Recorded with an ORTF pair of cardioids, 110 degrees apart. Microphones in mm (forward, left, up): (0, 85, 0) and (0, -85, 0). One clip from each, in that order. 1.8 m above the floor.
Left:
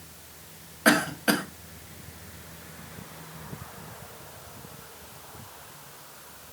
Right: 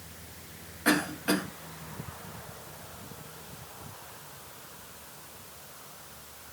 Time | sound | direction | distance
0.8 | a cough | 45° left | 1.5 m